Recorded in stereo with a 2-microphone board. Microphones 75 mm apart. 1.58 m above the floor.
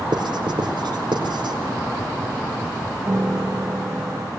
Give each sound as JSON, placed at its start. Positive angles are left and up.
{"t": 0.1, "sound": "writing", "side_deg": -85, "distance_m": 4.5}
{"t": 3.1, "sound": "a piano", "side_deg": -30, "distance_m": 0.8}